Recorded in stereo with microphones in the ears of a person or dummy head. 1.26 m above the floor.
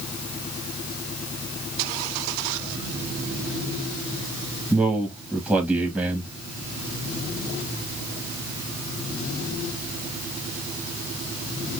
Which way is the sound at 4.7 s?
Centre (ahead or behind).